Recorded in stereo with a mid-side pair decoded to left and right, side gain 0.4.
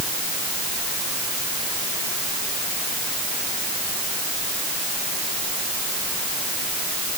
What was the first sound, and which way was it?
Only background noise.